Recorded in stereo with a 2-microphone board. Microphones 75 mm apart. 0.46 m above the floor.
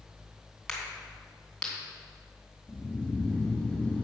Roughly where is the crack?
Centre.